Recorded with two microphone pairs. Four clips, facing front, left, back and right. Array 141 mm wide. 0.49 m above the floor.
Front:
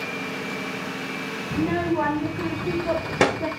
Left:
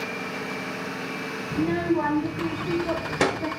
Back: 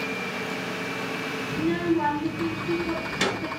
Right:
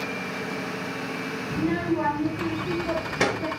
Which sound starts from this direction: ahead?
A child speaking, at 1.5 s.